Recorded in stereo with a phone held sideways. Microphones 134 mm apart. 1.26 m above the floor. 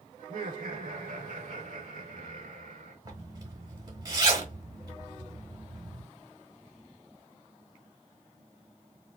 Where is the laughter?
80° right, 1.0 m.